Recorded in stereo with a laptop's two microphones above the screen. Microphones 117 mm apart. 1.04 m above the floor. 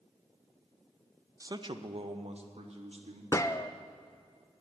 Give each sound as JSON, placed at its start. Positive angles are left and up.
{"t": 1.4, "sound": "a man speaking", "side_deg": -25, "distance_m": 0.6}
{"t": 3.3, "sound": "a gunshot", "side_deg": 25, "distance_m": 0.5}